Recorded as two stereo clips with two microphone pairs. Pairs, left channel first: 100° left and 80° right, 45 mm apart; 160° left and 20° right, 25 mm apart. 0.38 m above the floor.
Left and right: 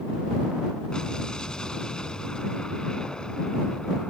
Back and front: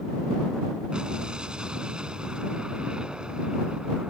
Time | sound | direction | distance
0.9 | an explosion | 25° left | ?